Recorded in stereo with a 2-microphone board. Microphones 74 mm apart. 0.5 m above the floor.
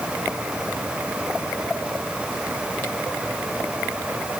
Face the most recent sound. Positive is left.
No sound to turn to.